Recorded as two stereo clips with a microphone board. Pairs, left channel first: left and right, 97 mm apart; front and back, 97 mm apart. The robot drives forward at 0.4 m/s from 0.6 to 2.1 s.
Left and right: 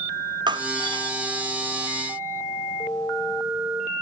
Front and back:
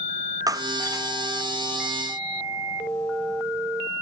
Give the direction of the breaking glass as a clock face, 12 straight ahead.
4 o'clock.